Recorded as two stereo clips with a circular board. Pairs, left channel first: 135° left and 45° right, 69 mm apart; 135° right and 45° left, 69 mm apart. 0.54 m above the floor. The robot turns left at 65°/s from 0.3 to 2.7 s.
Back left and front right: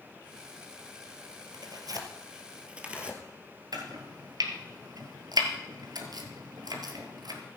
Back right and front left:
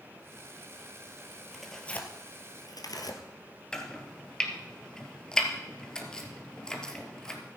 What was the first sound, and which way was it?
Tearing paper, 40° right.